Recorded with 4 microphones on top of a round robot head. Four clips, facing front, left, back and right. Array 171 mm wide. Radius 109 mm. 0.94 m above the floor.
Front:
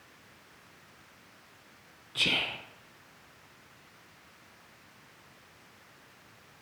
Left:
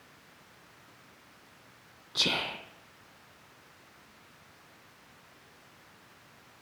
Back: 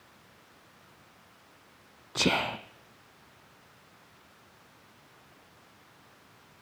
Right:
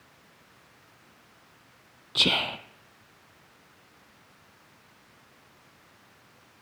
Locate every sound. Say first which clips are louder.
2.1 s whispering: right 5 dB, back 7 dB; 155° right, 0.5 m